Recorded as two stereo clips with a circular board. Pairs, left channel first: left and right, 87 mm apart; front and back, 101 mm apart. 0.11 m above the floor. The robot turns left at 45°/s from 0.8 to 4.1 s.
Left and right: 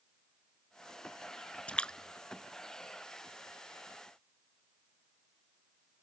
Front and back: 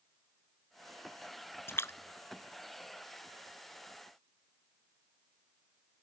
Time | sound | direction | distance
1.7 | a splash | 30° left | ?